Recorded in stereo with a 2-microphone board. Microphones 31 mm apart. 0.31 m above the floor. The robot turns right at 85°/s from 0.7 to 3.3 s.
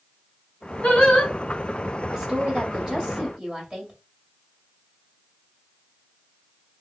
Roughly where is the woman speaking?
Centre.